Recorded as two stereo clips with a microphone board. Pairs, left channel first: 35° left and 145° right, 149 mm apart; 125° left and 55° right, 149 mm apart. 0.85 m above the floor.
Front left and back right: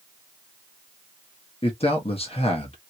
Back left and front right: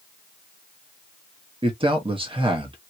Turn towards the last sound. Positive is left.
turn(degrees=-10)